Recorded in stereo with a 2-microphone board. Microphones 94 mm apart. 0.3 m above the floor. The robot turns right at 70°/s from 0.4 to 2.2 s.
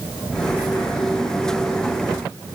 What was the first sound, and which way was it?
Only background noise.